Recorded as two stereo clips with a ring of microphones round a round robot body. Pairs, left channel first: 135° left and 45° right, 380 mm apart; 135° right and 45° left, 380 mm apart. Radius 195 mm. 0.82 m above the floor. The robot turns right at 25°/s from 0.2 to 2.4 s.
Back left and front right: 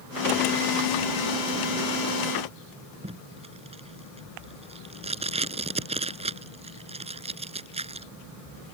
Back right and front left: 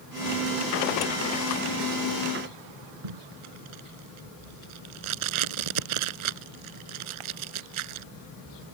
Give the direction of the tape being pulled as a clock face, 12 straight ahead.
11 o'clock.